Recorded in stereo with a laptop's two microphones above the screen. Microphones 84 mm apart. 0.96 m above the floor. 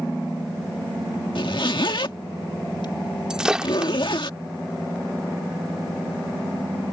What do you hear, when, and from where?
1.4 s a zipper: 70° left (ahead or behind)
3.3 s breaking glass: 10° right (ahead or behind)